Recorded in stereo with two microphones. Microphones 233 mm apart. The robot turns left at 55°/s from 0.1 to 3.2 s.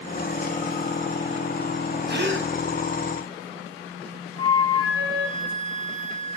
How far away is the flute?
About 2.5 m.